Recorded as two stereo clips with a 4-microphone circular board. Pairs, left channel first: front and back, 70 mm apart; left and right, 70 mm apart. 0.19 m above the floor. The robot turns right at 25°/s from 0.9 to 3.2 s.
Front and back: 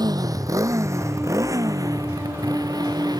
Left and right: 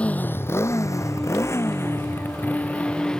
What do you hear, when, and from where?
0.0 s a motorcycle: 165° left; by 3.2 s 170° left